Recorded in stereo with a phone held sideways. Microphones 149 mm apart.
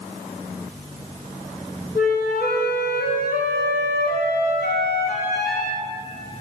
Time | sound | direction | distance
1.9 | a flute | 85° left | 3.5 m